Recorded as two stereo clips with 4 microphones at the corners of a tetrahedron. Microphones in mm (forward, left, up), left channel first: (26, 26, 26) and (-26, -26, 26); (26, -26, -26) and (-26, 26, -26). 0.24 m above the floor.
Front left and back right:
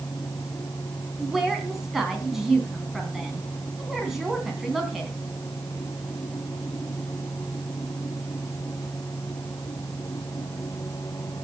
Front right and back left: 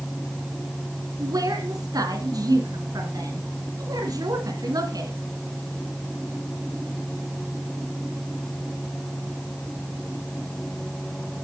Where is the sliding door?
No sliding door in this recording.